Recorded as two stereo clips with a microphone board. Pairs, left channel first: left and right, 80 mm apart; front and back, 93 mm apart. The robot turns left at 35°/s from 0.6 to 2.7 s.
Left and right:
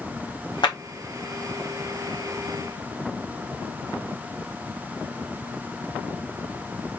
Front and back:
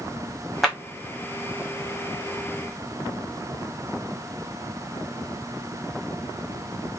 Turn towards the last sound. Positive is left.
turn(degrees=20)